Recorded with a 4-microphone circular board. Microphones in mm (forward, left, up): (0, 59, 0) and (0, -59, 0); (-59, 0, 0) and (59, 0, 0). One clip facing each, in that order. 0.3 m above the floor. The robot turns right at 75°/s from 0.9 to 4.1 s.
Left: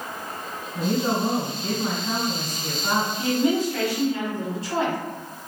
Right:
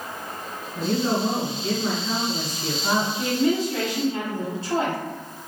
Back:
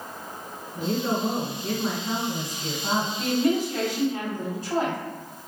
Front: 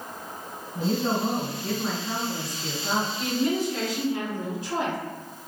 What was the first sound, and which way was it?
A woman speaking, 25° left.